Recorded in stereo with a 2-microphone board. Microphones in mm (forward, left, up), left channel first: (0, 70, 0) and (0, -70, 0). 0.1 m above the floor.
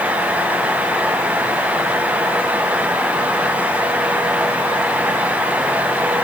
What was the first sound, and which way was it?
Only background noise.